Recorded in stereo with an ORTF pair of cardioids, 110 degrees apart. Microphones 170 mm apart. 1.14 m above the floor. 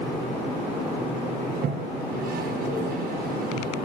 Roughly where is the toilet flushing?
Ahead right.